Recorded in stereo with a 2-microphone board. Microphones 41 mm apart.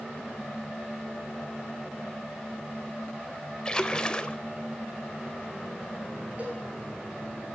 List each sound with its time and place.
3.6 s a splash: 20° left (ahead or behind), 0.5 m
6.4 s a cowbell: 40° right (ahead or behind), 4.5 m